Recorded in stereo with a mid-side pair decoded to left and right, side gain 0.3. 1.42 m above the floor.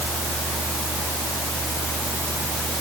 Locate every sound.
0.0 s a fan: 40° right